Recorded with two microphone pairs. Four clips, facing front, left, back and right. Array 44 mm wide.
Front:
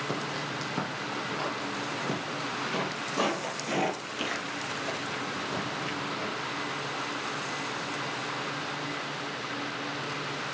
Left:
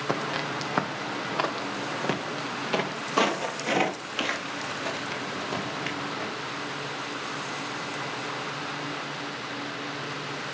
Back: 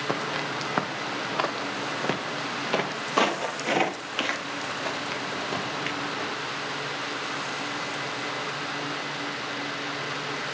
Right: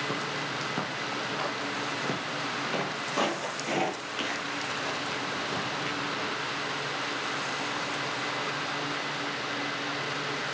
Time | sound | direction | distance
0.1 | footsteps | 130° left | 1.6 m